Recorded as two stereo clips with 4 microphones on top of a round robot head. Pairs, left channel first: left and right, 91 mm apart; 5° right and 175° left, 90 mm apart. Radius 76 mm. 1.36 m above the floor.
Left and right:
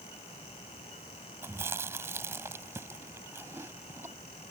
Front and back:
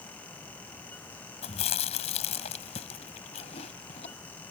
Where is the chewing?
20° right.